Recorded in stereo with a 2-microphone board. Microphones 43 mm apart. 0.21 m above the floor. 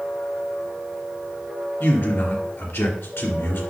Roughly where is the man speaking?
Left.